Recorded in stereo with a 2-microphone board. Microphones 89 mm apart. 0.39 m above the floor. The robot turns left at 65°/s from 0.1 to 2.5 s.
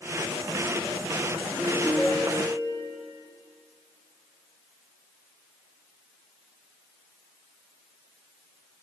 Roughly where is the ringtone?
Behind right.